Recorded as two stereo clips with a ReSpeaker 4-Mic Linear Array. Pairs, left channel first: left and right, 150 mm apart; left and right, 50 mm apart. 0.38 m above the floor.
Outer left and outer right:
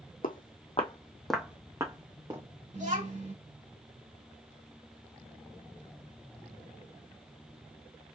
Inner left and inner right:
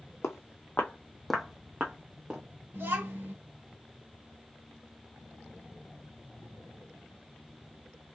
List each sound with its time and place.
0.2 s footsteps: 70° left (ahead or behind), 1.0 m; by 2.4 s 30° right (ahead or behind), 1.7 m
2.7 s a child speaking: 55° right (ahead or behind), 2.5 m